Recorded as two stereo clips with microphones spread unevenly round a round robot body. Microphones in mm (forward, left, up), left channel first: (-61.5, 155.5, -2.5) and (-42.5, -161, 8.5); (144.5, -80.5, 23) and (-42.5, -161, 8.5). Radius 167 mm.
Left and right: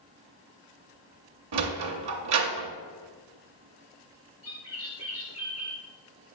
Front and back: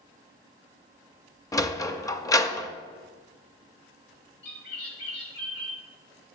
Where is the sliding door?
50° right, 0.6 m.